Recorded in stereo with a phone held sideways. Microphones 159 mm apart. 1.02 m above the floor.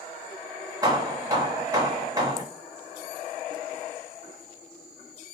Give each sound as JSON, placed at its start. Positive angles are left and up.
{"t": 0.8, "sound": "hammering", "side_deg": -20, "distance_m": 1.4}